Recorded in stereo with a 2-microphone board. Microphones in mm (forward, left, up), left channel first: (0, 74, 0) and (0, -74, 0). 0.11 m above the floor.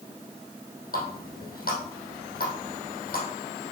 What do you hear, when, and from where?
0.9 s a running tap: 65° left (ahead or behind), 3 m